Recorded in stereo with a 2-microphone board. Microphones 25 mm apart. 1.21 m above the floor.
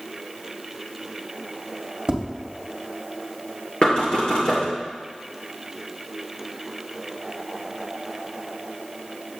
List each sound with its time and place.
2.1 s tapping: 30° right (ahead or behind), 1.8 m
3.8 s knocking: 40° left (ahead or behind), 2.5 m